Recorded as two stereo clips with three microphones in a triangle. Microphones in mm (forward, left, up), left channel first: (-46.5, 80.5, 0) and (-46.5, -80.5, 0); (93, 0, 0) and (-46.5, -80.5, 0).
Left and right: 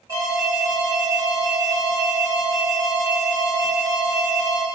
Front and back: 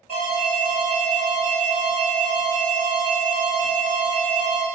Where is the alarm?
150° right, 1.1 m.